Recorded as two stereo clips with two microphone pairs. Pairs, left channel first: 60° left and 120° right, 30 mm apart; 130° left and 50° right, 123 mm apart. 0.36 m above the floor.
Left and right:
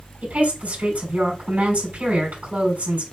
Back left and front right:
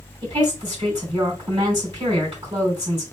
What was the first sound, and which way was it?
A woman speaking, 100° right.